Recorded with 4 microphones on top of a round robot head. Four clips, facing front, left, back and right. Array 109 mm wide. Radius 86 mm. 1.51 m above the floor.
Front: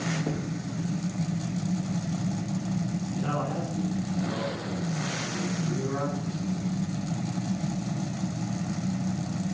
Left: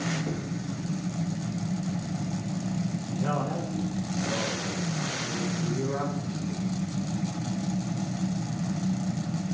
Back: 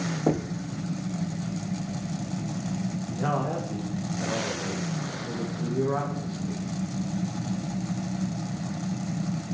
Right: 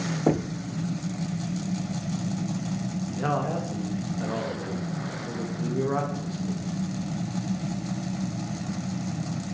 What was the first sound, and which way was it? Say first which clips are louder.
Knocking: right 8 dB, back 5 dB; 125° right.